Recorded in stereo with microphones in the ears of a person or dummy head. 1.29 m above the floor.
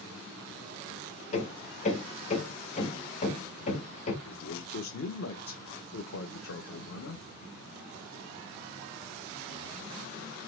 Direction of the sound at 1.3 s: 40° left (ahead or behind).